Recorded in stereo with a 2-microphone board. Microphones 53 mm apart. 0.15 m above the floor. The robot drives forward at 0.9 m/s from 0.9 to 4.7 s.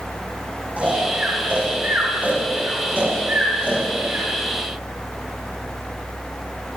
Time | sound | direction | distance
0.8 | snoring | 30° right (ahead or behind) | 8.5 m